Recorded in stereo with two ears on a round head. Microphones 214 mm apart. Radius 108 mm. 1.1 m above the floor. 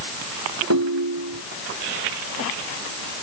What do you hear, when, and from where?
0.7 s a ringtone: 60° right (ahead or behind)